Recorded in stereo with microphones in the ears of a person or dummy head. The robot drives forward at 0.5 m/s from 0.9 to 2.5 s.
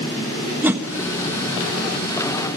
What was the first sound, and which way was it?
A whoosh, 10° right (ahead or behind).